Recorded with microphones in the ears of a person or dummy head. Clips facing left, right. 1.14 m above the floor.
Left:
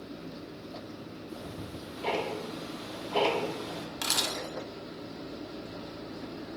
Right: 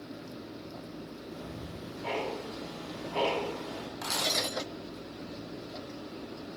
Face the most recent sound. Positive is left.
turn(degrees=40)  # may be behind; listen again after turning